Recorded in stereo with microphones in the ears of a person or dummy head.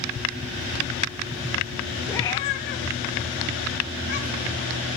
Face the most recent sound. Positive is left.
turn(degrees=40)  # may be behind; listen again after turning